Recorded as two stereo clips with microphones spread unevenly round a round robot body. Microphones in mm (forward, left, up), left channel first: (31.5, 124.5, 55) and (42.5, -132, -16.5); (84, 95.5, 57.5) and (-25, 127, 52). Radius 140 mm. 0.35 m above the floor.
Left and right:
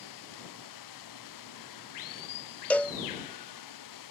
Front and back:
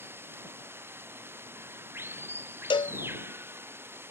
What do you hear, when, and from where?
0.0 s running water: 95° left
2.7 s a cowbell: 10° right